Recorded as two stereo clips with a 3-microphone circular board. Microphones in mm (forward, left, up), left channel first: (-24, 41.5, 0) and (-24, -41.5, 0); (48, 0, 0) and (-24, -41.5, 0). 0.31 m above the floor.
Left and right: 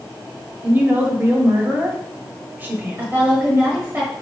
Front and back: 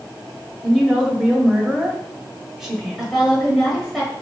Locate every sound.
0.6 s a woman speaking: 70° right, 1.2 m
3.0 s a woman speaking: 65° right, 1.2 m